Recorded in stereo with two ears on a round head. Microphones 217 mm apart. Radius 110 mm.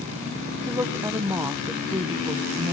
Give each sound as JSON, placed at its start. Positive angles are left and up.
{"t": 0.7, "sound": "a woman speaking", "side_deg": -10, "distance_m": 0.7}